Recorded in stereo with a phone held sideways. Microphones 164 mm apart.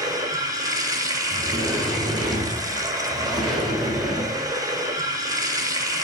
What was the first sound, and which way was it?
Running water, 20° right (ahead or behind).